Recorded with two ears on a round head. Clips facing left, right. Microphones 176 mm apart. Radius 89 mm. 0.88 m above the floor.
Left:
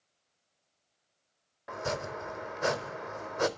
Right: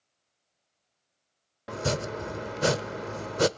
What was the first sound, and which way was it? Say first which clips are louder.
Chopping: right 5 dB; 40° right (ahead or behind).